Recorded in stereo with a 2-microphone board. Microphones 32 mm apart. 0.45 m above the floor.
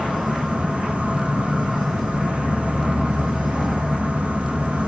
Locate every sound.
0.0 s an insect: 45° right (ahead or behind), 1.1 m